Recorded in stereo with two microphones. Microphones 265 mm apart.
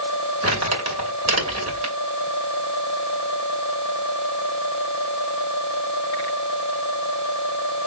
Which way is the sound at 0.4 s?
75° right (ahead or behind).